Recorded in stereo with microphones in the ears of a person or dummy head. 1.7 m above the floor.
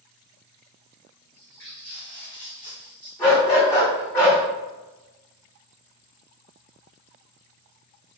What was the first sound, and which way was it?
Footsteps, centre (ahead or behind).